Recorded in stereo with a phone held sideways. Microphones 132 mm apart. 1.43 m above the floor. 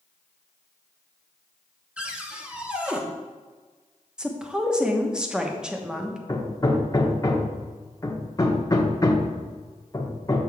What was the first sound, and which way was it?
A cupboard door, 10° right (ahead or behind).